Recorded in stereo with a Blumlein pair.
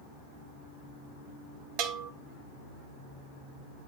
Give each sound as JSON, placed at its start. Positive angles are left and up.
{"t": 1.8, "sound": "a bell", "azimuth_deg": -40, "distance_m": 1.2}